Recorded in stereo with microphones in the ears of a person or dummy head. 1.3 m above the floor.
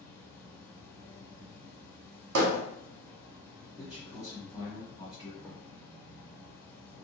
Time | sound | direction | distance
0.0 | an insect | 15° left (ahead or behind) | 0.9 m
2.4 | hammering | 70° right (ahead or behind) | 0.9 m
3.8 | a man speaking | 20° left (ahead or behind) | 1.7 m